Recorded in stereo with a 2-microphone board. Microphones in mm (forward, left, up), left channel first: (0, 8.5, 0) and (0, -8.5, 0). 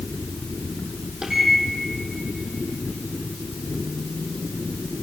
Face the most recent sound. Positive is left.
turn(degrees=-40)  # may be behind; listen again after turning